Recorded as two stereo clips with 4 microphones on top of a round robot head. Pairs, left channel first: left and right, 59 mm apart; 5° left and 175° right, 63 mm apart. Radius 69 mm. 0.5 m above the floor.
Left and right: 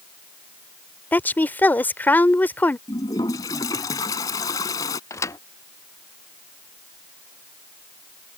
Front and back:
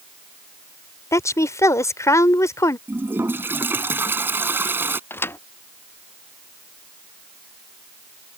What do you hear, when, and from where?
1.1 s a woman speaking: 35° left
2.9 s a toilet flushing: 125° left
5.1 s a thud: 55° left